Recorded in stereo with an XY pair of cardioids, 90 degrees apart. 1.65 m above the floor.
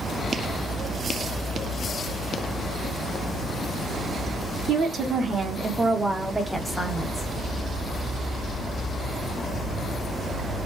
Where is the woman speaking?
65° right, 1.3 m; by 7.3 s 20° left, 1.2 m.